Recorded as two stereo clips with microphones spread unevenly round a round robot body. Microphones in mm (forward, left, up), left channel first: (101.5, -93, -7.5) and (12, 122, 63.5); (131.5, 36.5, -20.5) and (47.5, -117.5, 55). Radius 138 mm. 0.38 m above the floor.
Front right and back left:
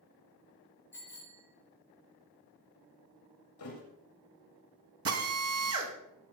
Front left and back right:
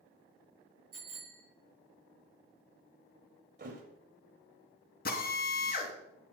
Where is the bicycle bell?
145° right, 4.5 m.